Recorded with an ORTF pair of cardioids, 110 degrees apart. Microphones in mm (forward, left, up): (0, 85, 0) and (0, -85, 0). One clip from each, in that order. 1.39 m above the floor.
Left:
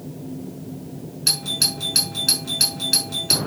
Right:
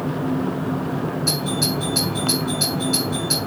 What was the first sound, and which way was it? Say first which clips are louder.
A doorbell: left 4 dB; 65° left.